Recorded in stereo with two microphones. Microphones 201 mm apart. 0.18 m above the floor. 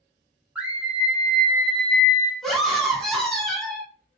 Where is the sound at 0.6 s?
5° right (ahead or behind), 1.5 m; by 2.3 s 15° left (ahead or behind), 1.0 m.